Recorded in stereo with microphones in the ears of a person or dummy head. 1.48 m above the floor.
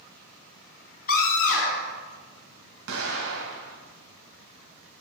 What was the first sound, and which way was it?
A scream, 50° left (ahead or behind).